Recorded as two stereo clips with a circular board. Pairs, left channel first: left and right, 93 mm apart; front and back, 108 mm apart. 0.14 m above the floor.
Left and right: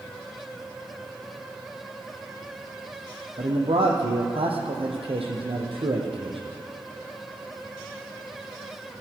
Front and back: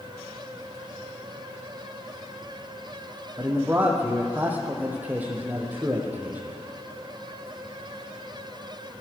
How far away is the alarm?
I don't hear an alarm.